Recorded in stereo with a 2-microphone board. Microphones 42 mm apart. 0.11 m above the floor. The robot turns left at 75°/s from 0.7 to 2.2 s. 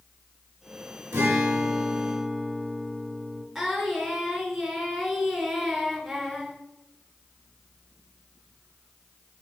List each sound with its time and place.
1.1 s a guitar: 80° right, 3 m; by 3.4 s 160° right, 3 m
3.5 s singing: 5° right (ahead or behind), 1.3 m